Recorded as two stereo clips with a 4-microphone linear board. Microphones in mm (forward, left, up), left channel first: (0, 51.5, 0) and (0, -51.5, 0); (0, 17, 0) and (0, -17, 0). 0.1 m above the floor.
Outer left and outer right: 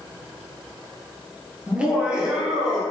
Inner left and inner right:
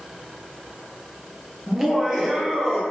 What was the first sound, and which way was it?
Laughter, 10° right (ahead or behind).